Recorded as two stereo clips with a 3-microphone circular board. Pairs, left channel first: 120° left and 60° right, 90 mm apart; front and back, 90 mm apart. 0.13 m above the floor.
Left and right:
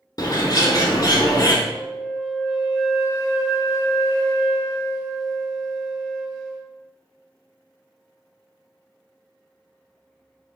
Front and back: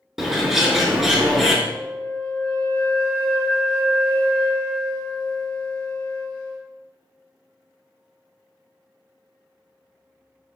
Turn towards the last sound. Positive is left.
turn(degrees=45)